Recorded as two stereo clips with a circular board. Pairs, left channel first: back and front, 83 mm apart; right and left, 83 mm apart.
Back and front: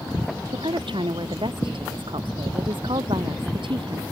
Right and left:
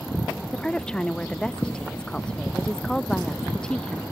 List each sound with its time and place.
0.5 s a woman speaking: 10° right